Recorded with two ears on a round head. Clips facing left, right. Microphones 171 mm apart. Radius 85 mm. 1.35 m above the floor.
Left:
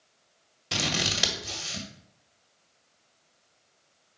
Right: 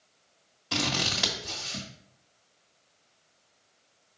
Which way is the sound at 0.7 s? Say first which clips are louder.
Right 1 dB; 25° left (ahead or behind).